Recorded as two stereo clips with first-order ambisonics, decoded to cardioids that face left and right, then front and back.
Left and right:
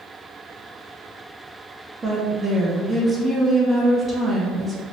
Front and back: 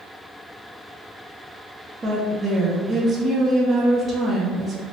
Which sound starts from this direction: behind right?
A woman speaking, at 2.0 s.